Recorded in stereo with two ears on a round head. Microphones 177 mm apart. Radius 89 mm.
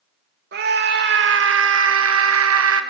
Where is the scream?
60° right (ahead or behind), 2 m; by 2.8 s 80° right, 1.8 m.